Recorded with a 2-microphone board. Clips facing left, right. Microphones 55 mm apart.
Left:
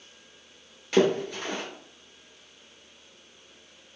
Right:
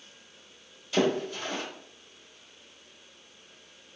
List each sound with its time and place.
0.9 s a splash: 70° left (ahead or behind), 1.2 m